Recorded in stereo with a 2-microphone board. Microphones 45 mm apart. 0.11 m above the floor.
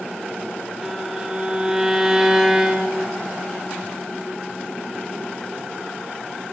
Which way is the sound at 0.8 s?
10° right (ahead or behind).